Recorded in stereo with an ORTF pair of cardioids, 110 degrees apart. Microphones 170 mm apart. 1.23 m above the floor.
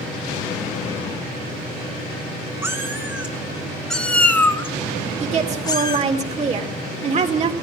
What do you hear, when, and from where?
2.6 s a cat meowing: 15° right, 2.5 m; by 6.1 s 30° left, 3 m
5.2 s a woman speaking: 40° right, 3.5 m